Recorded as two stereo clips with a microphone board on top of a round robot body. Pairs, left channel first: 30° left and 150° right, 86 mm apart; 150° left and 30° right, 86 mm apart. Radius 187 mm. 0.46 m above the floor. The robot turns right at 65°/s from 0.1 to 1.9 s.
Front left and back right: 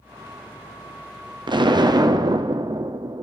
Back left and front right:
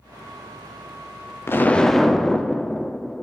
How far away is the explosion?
About 0.8 m.